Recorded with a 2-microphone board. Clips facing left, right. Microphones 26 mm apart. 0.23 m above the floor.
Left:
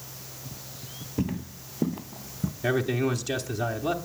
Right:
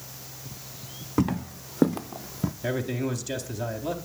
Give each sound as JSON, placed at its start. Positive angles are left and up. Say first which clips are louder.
{"t": 1.2, "sound": "footsteps", "louder": "right 5 dB", "side_deg": -70, "distance_m": 0.8}
{"t": 2.6, "sound": "a man speaking", "louder": "left 5 dB", "side_deg": 15, "distance_m": 1.0}